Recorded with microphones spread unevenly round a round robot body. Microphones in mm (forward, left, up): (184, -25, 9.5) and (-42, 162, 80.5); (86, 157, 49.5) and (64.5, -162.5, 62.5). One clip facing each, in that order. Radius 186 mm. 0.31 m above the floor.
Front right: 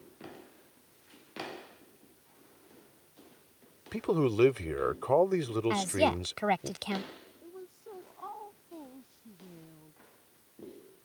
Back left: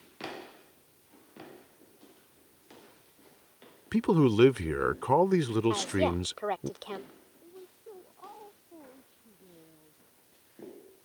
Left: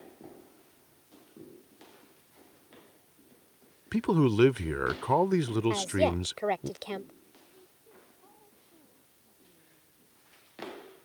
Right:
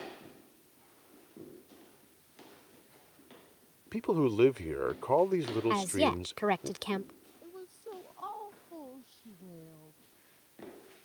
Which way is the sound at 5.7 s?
35° right.